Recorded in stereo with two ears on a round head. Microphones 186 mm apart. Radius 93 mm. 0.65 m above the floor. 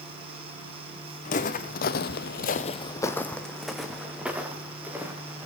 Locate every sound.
1.2 s footsteps: 35° left (ahead or behind), 1.9 m; by 5.5 s 10° right (ahead or behind), 4.5 m